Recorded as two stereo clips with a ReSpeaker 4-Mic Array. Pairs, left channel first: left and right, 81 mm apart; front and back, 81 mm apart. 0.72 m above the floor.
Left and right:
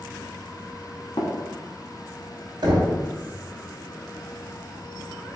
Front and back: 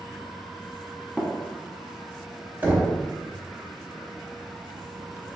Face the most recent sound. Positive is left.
turn(degrees=-110)